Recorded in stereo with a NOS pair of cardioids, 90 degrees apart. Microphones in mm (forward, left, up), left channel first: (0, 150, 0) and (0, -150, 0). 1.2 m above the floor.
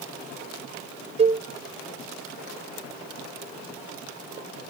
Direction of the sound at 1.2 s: 20° right.